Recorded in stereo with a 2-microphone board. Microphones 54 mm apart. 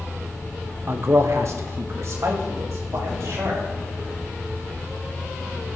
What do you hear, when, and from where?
0.9 s a man speaking: 45° right (ahead or behind), 0.8 m; by 3.6 s 65° right (ahead or behind), 4 m